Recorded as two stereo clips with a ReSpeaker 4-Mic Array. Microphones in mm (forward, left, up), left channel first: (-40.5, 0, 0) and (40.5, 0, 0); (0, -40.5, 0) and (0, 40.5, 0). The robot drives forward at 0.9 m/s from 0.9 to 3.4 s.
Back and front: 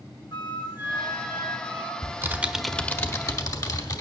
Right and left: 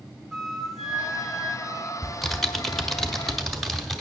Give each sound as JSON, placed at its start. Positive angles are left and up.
{"t": 0.3, "sound": "a flute", "azimuth_deg": 180, "distance_m": 0.8}
{"t": 2.0, "sound": "typing on a keyboard", "azimuth_deg": -5, "distance_m": 0.8}